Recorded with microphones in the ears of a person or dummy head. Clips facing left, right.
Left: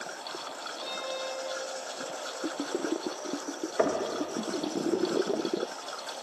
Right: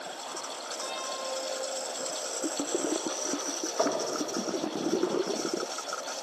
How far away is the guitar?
About 2.5 m.